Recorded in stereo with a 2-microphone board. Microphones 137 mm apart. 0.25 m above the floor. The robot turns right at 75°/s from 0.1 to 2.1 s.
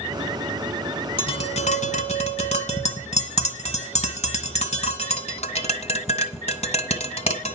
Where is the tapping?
40° left (ahead or behind), 1.8 m; by 7.5 s 50° left (ahead or behind), 1.8 m.